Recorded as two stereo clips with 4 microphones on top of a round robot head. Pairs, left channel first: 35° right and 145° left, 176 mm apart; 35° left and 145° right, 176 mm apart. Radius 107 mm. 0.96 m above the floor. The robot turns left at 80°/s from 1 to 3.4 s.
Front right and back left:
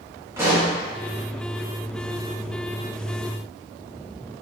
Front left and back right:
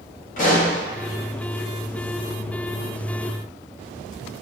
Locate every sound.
0.4 s a pop: 70° left, 1.2 m